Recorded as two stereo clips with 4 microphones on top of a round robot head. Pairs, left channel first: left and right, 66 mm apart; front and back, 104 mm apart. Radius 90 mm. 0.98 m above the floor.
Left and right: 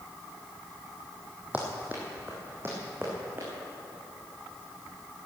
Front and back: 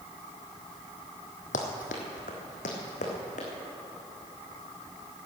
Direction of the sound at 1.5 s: 15° right.